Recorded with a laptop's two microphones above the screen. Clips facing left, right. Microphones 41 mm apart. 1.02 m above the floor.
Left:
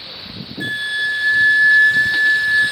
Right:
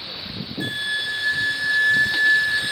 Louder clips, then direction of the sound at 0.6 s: Left 5 dB; 15° left (ahead or behind).